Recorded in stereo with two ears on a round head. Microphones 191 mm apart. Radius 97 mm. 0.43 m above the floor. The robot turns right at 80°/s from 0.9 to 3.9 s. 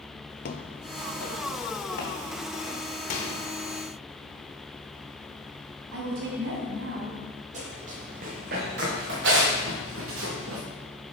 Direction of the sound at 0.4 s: 45° left (ahead or behind).